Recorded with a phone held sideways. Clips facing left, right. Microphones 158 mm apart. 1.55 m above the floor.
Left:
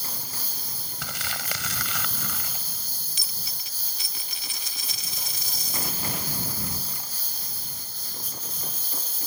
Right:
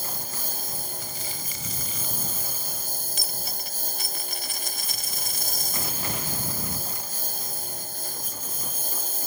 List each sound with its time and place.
0.0 s a lawn mower: 50° right (ahead or behind)
1.0 s crumpling: 90° left
3.2 s a dropped coin: 55° right (ahead or behind)